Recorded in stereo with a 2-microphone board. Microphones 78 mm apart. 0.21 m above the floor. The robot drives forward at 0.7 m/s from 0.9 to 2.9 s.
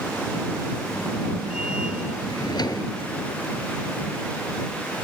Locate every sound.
2.3 s a drawer: 75° left (ahead or behind), 1.3 m; by 2.9 s 60° left (ahead or behind), 1.5 m